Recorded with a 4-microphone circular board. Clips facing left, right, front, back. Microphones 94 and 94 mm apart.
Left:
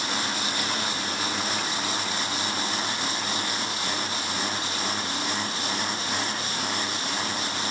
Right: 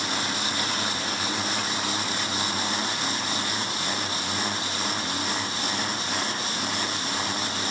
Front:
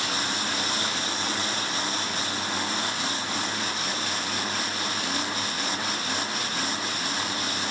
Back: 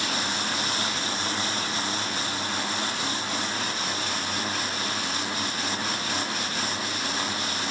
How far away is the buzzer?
No buzzer in this recording.